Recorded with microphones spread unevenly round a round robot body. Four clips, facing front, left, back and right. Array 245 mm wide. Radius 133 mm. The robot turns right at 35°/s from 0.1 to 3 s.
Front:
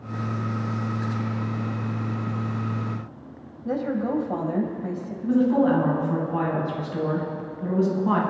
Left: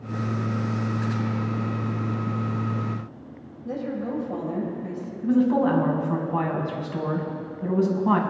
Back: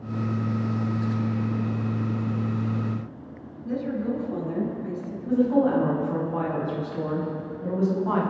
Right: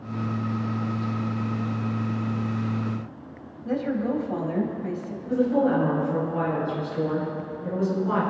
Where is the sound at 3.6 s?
20° right, 3 m.